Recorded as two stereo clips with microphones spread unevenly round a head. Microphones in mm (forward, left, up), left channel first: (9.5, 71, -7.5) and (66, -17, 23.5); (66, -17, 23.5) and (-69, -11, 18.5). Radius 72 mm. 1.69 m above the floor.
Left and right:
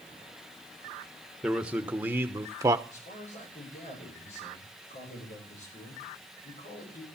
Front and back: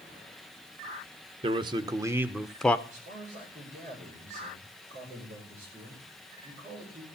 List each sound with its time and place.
1.4 s a man speaking: 135° right, 1.2 m; by 2.8 s 75° right, 0.8 m
2.9 s a man speaking: 135° left, 8.5 m